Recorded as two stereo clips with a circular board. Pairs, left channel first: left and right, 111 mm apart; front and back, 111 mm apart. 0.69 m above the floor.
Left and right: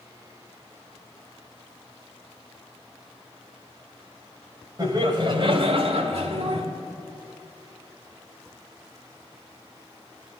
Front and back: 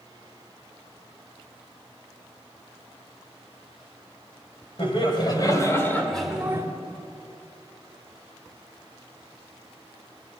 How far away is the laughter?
About 3 m.